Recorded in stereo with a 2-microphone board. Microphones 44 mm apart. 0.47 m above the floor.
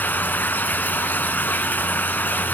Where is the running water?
45° left (ahead or behind), 1.2 m.